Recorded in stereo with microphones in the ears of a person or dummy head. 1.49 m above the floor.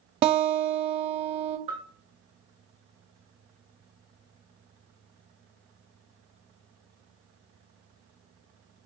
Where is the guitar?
35° right (ahead or behind), 0.6 m.